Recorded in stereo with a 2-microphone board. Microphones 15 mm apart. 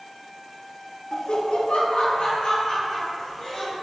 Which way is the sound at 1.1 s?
35° left (ahead or behind).